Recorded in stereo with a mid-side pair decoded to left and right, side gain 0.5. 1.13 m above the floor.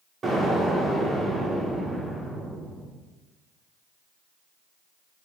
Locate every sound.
0.2 s an explosion: 40° right, 2 m